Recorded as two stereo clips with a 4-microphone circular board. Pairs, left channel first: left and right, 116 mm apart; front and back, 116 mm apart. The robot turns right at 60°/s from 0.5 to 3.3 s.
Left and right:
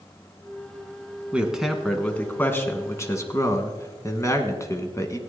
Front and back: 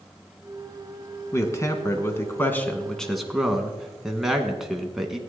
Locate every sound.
1.3 s a man speaking: 25° right, 1.2 m; by 5.2 s 95° left, 1.2 m